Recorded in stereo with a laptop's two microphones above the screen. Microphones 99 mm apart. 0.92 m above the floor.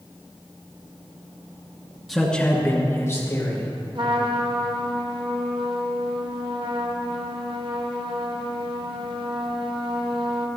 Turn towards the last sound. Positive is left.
turn(degrees=-55)  # may be behind; listen again after turning